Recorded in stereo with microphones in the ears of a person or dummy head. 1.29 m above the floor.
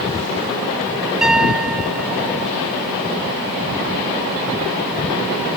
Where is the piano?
5° right (ahead or behind).